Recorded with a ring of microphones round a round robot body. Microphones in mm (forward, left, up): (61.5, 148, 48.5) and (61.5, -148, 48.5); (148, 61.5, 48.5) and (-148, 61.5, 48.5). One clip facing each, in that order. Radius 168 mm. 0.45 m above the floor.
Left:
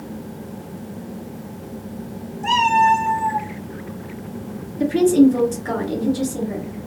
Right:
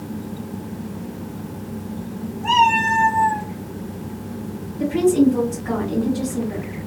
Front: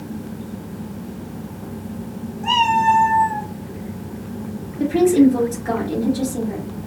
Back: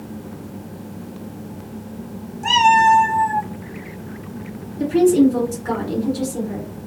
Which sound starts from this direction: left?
A woman speaking, at 4.8 s.